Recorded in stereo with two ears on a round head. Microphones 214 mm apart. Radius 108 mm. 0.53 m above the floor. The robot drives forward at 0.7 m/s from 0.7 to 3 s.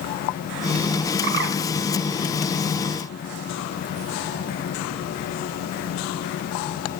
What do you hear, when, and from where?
1.2 s a bird: 50° right (ahead or behind), 0.6 m; by 1.6 s 40° right (ahead or behind), 0.8 m